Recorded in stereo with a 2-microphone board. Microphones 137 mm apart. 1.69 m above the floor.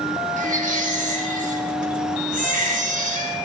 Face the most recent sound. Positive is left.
turn(degrees=-75)  # may be behind; listen again after turning